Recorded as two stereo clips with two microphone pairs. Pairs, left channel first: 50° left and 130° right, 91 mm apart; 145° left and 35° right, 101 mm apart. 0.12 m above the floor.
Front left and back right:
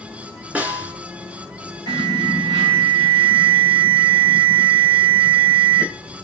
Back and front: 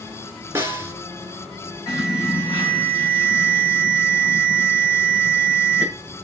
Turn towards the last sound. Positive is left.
turn(degrees=-155)